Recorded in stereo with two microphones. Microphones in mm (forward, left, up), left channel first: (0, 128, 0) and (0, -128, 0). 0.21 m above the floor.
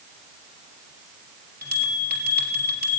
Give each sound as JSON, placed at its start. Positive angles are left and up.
{"t": 1.6, "sound": "a bell", "side_deg": -35, "distance_m": 3.5}